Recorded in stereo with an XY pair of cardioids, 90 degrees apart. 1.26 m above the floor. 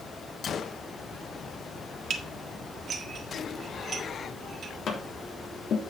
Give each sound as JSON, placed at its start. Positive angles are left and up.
{"t": 0.4, "sound": "a gunshot", "azimuth_deg": 55, "distance_m": 0.8}
{"t": 2.1, "sound": "dishes clattering", "azimuth_deg": -60, "distance_m": 1.6}
{"t": 4.9, "sound": "tapping", "azimuth_deg": 65, "distance_m": 3.0}